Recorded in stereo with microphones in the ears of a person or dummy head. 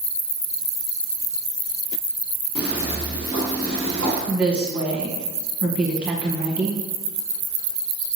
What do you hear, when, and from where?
2.5 s footsteps: 50° left (ahead or behind), 1.8 m; by 4.2 s 20° right (ahead or behind), 1.1 m
4.3 s a woman speaking: 10° right (ahead or behind), 0.8 m